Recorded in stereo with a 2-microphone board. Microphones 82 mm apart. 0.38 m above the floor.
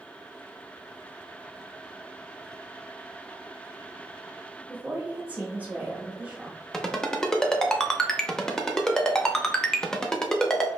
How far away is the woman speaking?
About 0.8 m.